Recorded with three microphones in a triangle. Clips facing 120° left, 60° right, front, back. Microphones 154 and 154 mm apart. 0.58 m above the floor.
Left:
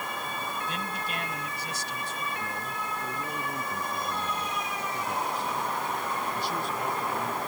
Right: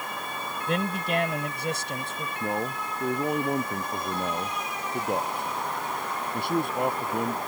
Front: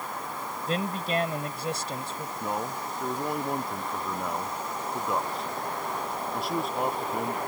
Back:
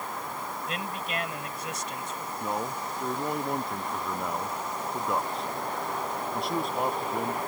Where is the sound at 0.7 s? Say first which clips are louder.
Right 7 dB, front 8 dB; 55° right.